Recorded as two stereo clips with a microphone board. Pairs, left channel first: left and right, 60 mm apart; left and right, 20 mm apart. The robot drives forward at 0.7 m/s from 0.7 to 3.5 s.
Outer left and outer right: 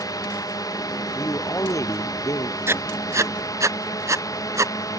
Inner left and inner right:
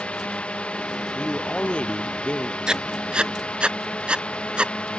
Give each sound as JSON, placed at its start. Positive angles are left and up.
{"t": 0.0, "sound": "a drone", "side_deg": 75}
{"t": 1.1, "sound": "a man speaking", "side_deg": 55}
{"t": 2.7, "sound": "writing", "side_deg": -45}